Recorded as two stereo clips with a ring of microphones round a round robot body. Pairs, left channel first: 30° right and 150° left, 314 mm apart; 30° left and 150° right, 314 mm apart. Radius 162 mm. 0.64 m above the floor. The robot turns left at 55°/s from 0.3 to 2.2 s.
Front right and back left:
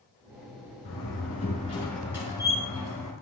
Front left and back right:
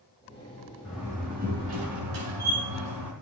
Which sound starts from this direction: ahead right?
A door slam, at 0.8 s.